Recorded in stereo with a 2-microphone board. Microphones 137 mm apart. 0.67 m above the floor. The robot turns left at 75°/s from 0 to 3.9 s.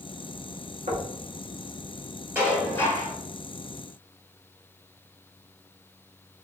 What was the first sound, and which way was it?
Knocking, 65° right (ahead or behind).